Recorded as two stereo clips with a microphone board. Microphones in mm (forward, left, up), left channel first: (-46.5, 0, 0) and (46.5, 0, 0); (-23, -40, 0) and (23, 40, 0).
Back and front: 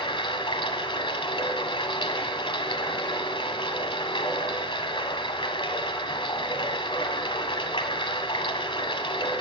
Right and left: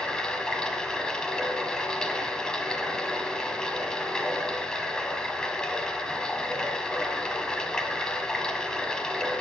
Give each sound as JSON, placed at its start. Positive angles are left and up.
{"t": 0.0, "sound": "running water", "azimuth_deg": 160, "distance_m": 1.8}